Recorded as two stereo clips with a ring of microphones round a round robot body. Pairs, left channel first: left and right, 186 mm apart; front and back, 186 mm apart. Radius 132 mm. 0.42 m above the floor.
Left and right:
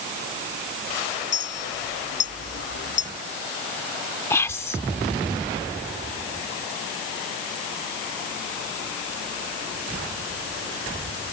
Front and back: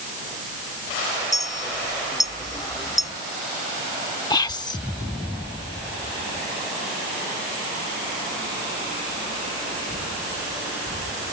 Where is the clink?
70° left.